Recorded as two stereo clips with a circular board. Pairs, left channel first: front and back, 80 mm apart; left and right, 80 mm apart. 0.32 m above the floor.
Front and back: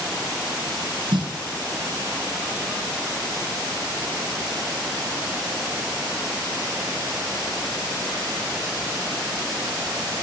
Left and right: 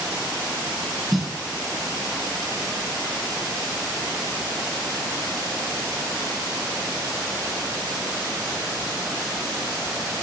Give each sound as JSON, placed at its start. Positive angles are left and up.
{"t": 1.1, "sound": "a snare drum", "azimuth_deg": 180, "distance_m": 1.4}